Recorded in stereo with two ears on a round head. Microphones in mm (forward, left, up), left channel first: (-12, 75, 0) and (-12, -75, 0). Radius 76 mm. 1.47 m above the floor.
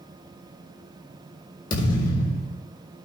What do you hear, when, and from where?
1.7 s a thud: 50° left (ahead or behind), 4 m